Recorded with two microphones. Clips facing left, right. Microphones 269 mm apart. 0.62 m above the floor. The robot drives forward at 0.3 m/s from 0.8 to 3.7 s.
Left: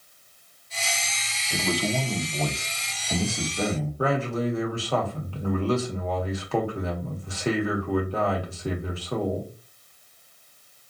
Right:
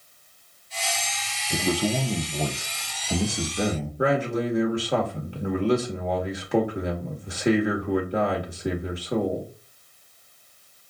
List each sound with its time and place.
1.5 s a man speaking: 25° right (ahead or behind), 0.7 m; by 3.9 s 15° right (ahead or behind), 1.2 m
4.0 s a man speaking: 15° right (ahead or behind), 1.3 m